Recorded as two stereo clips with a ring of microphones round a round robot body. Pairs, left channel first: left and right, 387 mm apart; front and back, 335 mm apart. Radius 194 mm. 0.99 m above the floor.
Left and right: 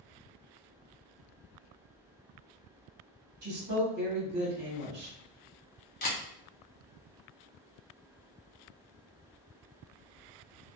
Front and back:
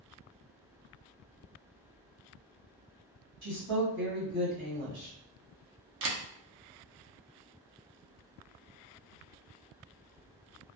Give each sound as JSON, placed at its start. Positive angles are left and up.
{"t": 3.4, "sound": "a woman speaking", "azimuth_deg": -140, "distance_m": 1.4}
{"t": 6.0, "sound": "a camera shutter", "azimuth_deg": 150, "distance_m": 0.6}